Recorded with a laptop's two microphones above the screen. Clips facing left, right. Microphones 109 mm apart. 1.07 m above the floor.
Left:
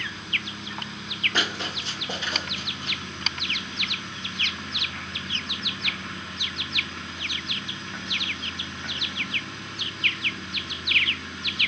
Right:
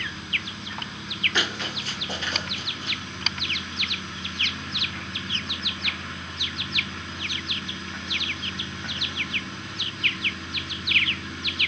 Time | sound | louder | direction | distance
1.3 | running footsteps | even | 45° left (ahead or behind) | 1.4 m